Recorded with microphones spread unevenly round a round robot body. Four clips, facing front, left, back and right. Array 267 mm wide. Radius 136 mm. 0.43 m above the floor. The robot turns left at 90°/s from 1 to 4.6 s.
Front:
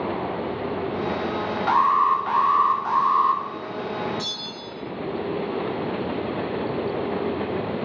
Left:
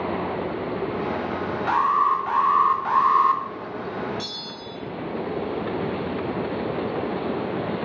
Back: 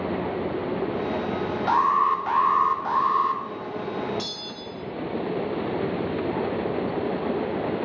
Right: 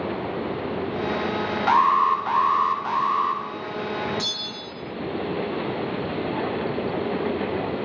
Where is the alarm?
115° right, 0.5 m; by 3.4 s 90° left, 0.5 m.